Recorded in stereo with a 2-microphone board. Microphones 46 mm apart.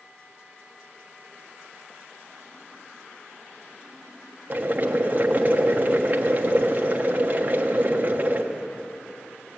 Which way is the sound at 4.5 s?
35° right (ahead or behind).